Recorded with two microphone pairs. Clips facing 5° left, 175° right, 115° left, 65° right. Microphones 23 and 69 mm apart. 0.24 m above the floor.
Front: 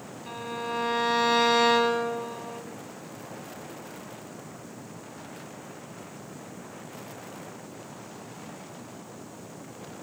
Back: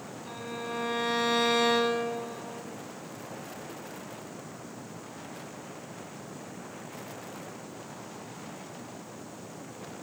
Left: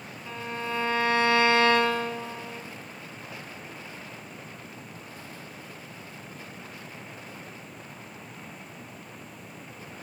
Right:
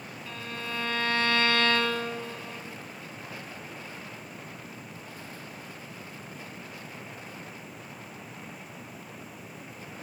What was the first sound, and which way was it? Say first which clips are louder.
A violin: front 4 dB, left 5 dB; 50° left.